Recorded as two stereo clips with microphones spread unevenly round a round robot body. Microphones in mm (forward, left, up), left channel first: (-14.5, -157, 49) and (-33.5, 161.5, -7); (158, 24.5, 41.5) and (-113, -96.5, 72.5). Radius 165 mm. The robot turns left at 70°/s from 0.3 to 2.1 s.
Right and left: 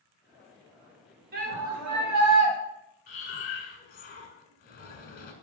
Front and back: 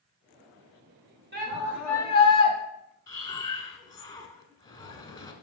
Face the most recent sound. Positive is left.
turn(degrees=-30)